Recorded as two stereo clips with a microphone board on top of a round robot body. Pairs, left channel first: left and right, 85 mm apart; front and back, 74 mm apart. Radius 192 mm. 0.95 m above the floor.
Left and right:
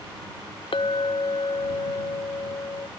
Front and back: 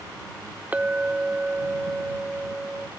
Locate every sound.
0.7 s a clink: 110° left